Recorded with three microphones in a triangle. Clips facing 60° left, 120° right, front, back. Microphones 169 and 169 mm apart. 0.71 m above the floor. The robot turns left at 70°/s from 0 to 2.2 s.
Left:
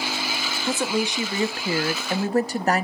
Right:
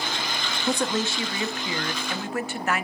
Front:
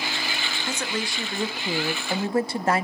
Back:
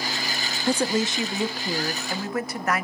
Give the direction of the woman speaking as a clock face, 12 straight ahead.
7 o'clock.